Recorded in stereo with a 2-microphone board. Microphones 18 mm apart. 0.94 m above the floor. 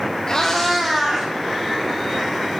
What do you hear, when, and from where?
0.3 s a cat meowing: 35° left (ahead or behind), 0.9 m; by 1.3 s 25° right (ahead or behind), 1.4 m